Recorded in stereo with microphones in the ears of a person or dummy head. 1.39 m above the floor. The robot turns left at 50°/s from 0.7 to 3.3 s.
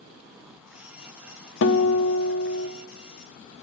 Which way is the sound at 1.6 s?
115° left.